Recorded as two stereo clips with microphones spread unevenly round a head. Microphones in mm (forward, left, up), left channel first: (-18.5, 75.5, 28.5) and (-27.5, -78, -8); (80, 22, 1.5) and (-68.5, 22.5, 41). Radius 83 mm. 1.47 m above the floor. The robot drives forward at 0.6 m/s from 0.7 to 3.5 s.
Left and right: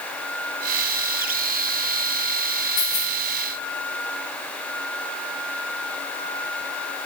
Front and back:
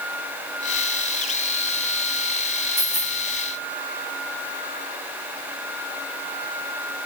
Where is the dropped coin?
45° left, 7 m.